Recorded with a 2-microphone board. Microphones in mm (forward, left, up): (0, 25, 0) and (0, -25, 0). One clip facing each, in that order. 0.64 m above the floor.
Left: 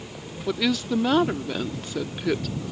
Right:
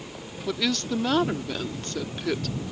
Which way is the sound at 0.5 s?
5° left (ahead or behind).